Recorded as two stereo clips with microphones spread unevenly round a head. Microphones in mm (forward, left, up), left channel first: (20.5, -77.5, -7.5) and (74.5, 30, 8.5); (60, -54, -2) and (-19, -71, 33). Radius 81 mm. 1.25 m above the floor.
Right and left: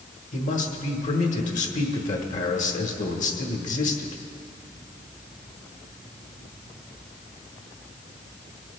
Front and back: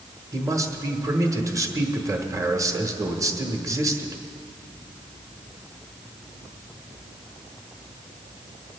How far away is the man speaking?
About 1.4 m.